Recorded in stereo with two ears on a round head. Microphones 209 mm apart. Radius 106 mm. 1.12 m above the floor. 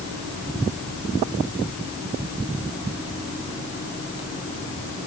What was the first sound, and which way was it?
Only background noise.